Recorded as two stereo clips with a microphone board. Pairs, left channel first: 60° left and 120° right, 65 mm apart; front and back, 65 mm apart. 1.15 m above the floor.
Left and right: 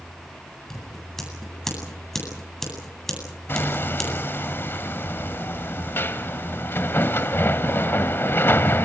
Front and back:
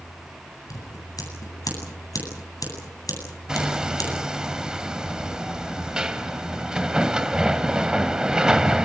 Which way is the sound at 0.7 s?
25° right.